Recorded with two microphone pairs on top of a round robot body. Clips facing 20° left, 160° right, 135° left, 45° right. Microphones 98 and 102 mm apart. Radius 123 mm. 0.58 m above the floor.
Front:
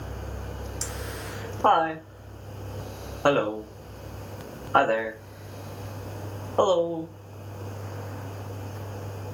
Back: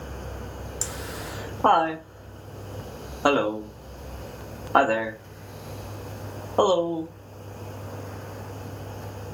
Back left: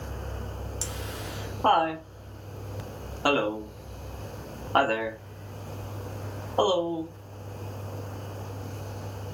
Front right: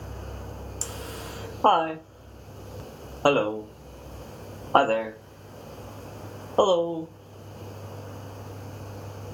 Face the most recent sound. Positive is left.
turn(degrees=-75)